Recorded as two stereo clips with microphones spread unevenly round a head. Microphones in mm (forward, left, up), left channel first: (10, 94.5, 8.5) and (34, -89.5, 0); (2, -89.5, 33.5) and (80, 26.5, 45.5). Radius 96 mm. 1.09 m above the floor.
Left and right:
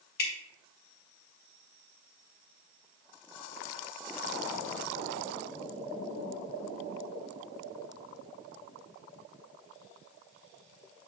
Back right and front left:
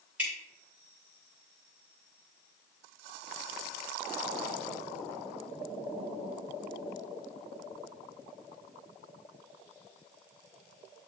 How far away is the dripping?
About 1.7 m.